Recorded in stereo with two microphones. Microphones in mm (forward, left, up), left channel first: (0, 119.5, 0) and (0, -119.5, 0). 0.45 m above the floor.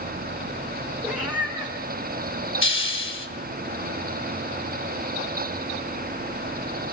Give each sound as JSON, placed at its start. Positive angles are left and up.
{"t": 1.0, "sound": "a cat meowing", "side_deg": -5, "distance_m": 3.0}
{"t": 2.6, "sound": "a hiss", "side_deg": 55, "distance_m": 2.5}